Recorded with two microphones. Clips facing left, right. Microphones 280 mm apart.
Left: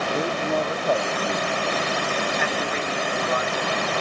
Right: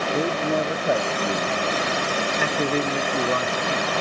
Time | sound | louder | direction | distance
0.1 | a man speaking | right 3 dB | 15° right (ahead or behind) | ?
2.4 | a man speaking | right 4 dB | 45° right (ahead or behind) | ?